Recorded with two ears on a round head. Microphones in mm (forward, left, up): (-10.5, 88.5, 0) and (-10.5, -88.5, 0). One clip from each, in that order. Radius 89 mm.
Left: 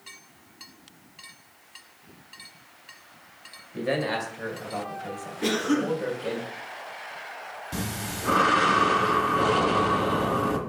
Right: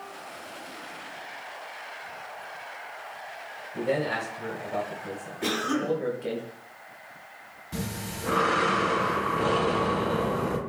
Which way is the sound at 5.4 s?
15° right (ahead or behind).